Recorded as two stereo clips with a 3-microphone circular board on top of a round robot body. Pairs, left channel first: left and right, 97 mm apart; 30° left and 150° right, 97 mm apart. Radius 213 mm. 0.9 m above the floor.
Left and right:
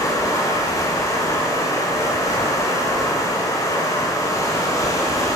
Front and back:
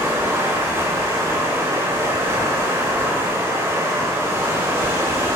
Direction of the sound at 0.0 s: 145° left.